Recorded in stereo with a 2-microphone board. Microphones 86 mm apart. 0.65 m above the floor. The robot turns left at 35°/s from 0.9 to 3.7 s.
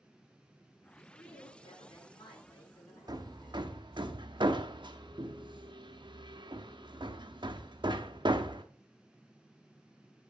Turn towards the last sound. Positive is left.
turn(degrees=-60)  # may be behind; listen again after turning